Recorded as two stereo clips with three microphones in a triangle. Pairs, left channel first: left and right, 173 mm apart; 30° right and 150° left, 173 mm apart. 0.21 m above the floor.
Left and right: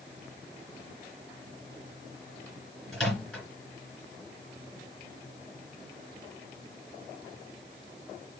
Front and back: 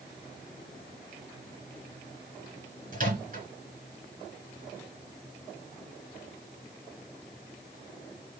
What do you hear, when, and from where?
2.9 s a microwave: 175° left, 2 m